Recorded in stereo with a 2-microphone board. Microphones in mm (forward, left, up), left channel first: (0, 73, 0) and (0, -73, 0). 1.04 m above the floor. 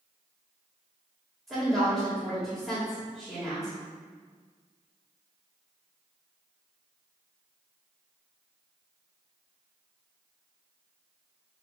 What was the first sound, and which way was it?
A woman speaking, centre (ahead or behind).